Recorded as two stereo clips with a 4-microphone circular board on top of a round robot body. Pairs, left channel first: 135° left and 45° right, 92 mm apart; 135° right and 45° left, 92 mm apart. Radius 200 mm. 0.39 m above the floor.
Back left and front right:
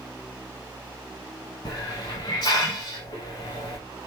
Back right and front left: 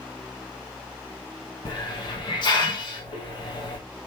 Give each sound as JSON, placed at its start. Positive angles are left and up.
{"t": 1.6, "sound": "a hiss", "azimuth_deg": -175, "distance_m": 0.8}